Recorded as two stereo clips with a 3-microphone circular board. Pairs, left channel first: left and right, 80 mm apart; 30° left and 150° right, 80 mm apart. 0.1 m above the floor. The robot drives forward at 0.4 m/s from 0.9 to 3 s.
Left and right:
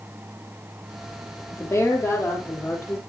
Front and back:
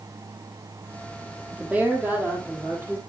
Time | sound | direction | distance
1.5 | a woman speaking | 140° left | 2.5 m